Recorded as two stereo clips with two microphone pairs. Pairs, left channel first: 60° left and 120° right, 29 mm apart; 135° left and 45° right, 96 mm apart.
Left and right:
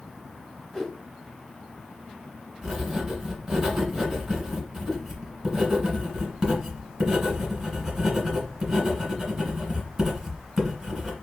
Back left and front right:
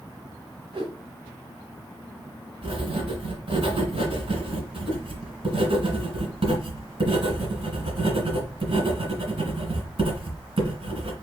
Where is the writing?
50° right, 1.8 m.